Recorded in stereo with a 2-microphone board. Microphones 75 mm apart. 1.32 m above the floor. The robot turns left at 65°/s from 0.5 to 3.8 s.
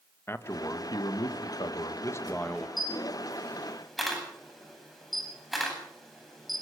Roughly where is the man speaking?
Behind left.